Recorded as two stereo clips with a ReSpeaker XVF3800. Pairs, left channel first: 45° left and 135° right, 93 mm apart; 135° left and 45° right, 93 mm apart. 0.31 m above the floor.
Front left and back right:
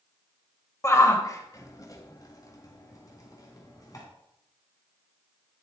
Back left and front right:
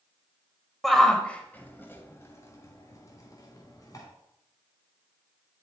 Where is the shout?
50° left, 1.0 m; by 4.0 s 90° left, 2.5 m.